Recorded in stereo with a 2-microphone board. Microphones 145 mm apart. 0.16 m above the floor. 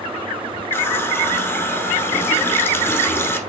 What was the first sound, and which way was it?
A running tap, 15° left (ahead or behind).